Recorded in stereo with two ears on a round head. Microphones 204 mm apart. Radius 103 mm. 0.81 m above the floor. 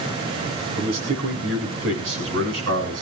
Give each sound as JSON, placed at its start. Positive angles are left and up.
{"t": 0.8, "sound": "a man speaking", "side_deg": -75, "distance_m": 8.0}